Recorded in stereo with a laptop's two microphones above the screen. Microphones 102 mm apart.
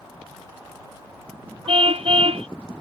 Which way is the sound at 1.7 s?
80° right.